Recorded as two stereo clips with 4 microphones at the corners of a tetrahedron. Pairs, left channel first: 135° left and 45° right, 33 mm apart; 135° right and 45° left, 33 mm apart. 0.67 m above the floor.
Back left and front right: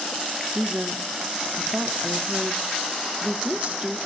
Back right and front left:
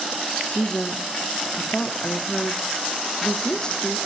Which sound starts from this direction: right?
A woman speaking, at 0.5 s.